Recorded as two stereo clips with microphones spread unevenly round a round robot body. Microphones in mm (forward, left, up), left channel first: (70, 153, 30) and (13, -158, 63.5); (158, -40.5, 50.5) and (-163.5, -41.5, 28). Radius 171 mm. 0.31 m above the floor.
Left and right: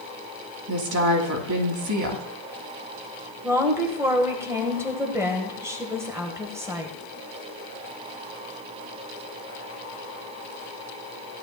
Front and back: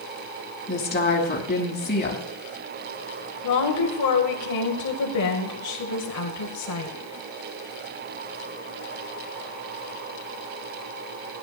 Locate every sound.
0.7 s a woman speaking: 65° right, 2.5 m
3.4 s a woman speaking: 15° right, 1.9 m